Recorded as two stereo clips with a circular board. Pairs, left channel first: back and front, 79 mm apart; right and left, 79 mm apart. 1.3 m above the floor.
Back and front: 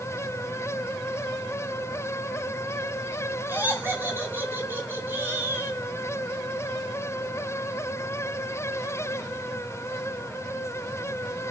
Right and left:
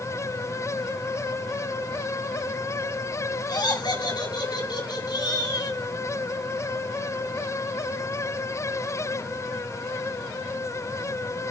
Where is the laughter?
65° right, 8 m; by 5.8 s 60° right, 9.5 m.